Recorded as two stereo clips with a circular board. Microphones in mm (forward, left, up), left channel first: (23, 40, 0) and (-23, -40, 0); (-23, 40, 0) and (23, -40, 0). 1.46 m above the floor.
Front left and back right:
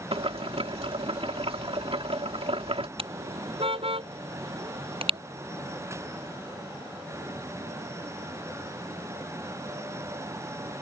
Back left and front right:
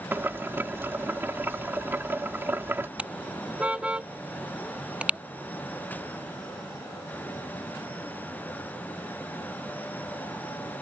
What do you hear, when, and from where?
0.1 s boiling: 130° right
3.0 s a car horn: 140° right